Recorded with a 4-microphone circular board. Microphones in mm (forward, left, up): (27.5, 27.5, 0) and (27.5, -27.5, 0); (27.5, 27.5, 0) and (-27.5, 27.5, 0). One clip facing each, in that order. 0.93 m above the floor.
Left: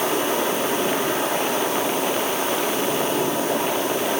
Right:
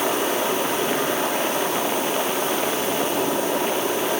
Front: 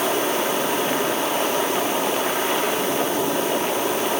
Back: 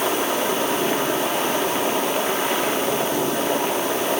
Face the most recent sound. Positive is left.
No sound to turn to.